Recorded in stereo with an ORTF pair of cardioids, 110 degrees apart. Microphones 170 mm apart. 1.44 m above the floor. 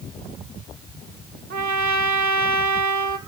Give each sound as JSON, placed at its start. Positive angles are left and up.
{"t": 1.5, "sound": "a trumpet", "azimuth_deg": -65, "distance_m": 1.4}